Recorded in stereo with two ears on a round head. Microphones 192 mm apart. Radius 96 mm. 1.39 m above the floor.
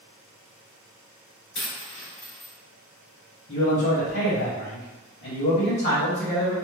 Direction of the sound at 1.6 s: 55° left (ahead or behind).